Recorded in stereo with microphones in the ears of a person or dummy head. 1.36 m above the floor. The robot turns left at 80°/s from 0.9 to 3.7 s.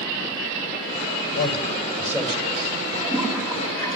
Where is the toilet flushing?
135° right, 6.5 m; by 4.0 s 165° left, 6.5 m.